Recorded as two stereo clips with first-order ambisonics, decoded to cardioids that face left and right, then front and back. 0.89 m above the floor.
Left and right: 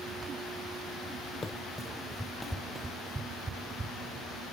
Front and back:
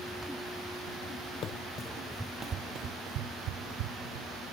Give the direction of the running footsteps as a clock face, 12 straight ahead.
11 o'clock.